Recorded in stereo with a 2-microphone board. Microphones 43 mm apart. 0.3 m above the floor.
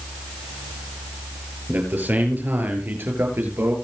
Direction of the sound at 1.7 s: 45° right (ahead or behind).